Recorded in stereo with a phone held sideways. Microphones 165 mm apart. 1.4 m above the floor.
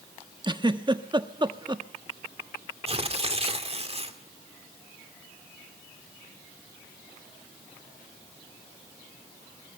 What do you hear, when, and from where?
0.4 s a giggle: 30° right (ahead or behind), 1.1 m
2.9 s tearing paper: 40° right (ahead or behind), 2.0 m